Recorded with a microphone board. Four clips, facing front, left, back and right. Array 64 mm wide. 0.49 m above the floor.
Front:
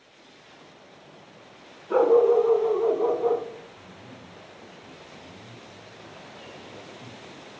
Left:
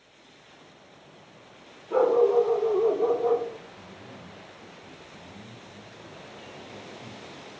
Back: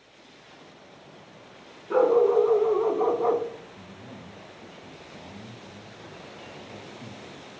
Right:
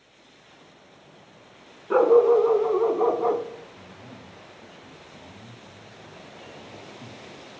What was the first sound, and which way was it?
A dog barking, 90° right.